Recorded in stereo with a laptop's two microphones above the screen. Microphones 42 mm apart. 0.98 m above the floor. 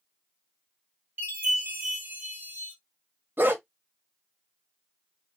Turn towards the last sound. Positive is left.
turn(degrees=-55)  # may be behind; listen again after turning